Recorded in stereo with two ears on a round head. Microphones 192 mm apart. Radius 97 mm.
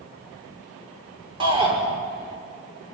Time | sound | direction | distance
1.4 | a shout | 25° right (ahead or behind) | 5 m